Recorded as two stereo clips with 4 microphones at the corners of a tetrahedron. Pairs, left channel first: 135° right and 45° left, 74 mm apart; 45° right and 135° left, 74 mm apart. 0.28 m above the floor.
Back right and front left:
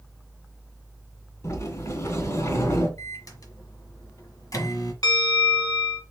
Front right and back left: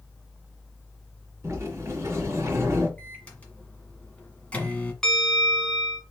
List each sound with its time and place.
1.4 s a sliding door: 175° right, 3 m
3.0 s a microwave: 115° right, 1.5 m
5.0 s a bell: 130° right, 1.5 m